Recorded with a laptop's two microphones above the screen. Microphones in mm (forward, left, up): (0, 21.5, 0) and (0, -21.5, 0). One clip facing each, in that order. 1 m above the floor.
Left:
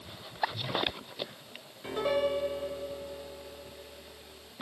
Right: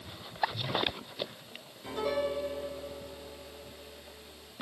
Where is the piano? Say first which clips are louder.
Left 3 dB; 30° left (ahead or behind), 5 m.